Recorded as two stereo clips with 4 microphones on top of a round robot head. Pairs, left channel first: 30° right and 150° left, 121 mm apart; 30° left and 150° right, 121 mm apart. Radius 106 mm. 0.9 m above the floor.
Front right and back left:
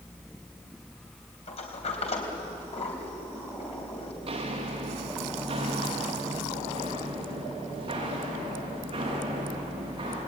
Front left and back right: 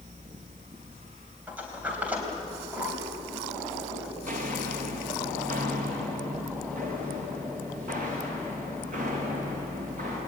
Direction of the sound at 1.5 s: 70° right.